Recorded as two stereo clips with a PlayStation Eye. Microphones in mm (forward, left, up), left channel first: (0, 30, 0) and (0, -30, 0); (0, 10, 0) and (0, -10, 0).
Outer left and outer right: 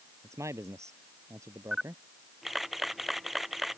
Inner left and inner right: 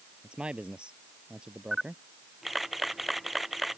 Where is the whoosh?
I don't hear a whoosh.